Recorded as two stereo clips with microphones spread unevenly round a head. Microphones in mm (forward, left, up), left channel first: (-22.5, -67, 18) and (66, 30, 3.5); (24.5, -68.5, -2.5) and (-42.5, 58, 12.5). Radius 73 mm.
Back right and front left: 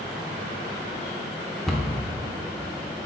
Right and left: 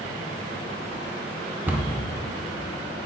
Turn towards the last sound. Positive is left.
turn(degrees=160)